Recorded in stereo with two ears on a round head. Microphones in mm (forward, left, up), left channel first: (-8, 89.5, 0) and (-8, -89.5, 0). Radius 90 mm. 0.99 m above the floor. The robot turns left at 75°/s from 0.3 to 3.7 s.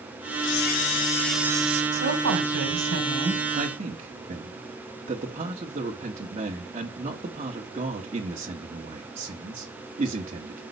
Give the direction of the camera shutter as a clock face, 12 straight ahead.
10 o'clock.